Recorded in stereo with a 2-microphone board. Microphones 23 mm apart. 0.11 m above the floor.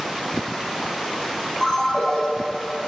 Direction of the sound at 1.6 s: 20° left (ahead or behind).